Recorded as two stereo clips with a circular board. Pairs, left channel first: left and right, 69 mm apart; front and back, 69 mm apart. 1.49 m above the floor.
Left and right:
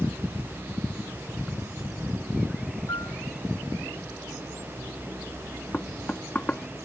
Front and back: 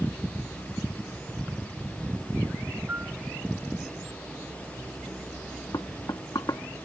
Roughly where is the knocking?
Ahead.